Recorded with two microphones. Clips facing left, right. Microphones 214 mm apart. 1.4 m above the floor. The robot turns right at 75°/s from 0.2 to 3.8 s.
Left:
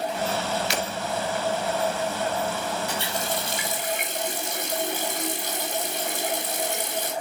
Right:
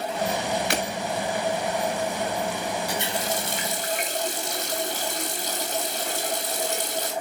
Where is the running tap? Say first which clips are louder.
Right 1 dB; 170° right, 2.5 m; by 7.1 s 100° right, 2.5 m.